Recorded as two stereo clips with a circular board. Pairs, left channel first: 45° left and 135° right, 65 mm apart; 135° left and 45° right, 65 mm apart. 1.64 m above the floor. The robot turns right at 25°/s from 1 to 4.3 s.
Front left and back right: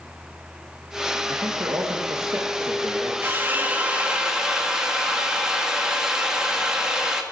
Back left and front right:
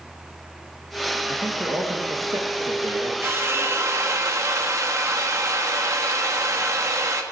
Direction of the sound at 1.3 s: 110° right.